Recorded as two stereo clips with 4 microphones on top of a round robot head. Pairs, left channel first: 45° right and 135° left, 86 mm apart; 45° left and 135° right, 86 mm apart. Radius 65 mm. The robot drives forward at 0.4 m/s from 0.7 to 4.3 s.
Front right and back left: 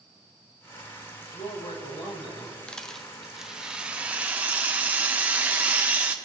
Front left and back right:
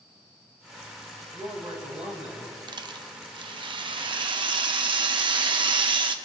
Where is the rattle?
125° right, 0.7 m; by 6.2 s 155° right, 1.1 m.